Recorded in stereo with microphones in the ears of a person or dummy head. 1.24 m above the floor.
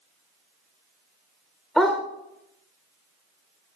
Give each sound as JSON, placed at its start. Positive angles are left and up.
{"t": 1.8, "sound": "a dog barking", "side_deg": 0, "distance_m": 1.4}